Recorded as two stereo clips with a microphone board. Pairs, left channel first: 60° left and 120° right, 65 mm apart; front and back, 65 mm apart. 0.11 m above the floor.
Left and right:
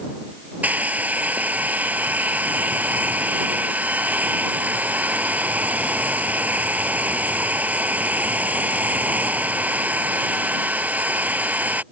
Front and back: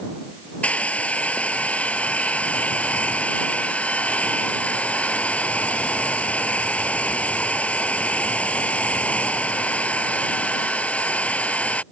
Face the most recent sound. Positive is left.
turn(degrees=-65)